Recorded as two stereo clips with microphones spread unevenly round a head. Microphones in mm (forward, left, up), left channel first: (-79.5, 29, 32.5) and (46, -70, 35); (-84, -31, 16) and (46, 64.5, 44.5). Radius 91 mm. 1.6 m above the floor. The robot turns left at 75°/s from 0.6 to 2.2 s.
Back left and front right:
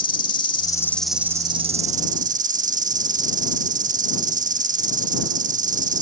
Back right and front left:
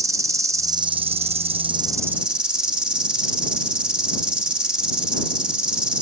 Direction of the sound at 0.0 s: 85° left.